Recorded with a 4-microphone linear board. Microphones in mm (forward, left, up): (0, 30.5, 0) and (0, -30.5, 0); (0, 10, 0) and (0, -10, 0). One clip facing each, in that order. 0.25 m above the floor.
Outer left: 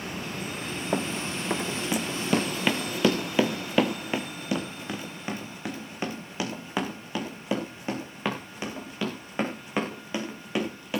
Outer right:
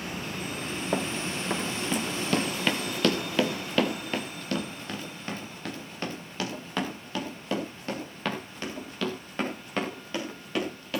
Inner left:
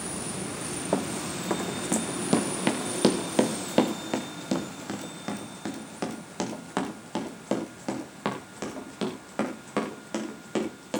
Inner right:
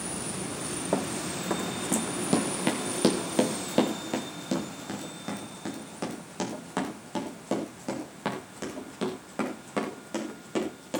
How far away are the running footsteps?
About 0.8 m.